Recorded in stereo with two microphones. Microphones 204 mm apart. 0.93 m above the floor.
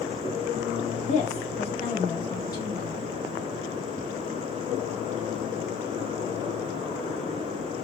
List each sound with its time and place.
1.1 s a woman speaking: 35° left (ahead or behind), 2.5 m; by 3.0 s 15° left (ahead or behind), 1.8 m